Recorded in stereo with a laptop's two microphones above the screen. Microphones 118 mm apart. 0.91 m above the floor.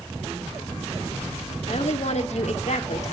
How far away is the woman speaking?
About 2.0 m.